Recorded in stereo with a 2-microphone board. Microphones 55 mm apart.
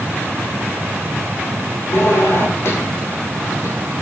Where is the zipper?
60° left (ahead or behind), 6.5 m.